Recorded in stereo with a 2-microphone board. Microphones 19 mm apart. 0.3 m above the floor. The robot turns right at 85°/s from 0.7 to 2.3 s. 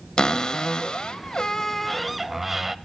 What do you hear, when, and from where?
0.2 s a cupboard door: 65° left, 0.6 m; by 2.8 s 160° right, 0.6 m